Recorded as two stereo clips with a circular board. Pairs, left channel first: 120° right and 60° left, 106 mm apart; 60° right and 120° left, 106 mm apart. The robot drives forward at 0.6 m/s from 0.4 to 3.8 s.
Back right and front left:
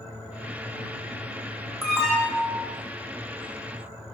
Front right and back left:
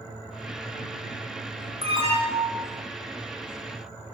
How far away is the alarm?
About 8 m.